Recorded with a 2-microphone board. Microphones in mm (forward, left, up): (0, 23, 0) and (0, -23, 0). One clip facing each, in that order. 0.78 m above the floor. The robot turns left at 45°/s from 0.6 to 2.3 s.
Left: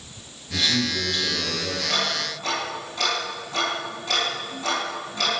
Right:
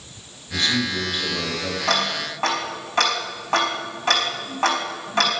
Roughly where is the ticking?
Right.